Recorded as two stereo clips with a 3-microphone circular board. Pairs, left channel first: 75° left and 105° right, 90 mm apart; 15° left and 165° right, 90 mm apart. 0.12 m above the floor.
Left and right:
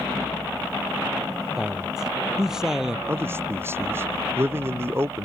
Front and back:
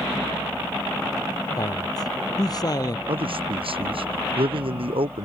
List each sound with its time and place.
1.6 s a man speaking: 20° right
3.1 s a man speaking: 170° right